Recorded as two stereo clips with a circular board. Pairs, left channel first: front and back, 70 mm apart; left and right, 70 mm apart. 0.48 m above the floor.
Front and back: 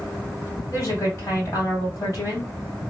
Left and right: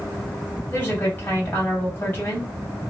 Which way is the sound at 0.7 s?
30° left.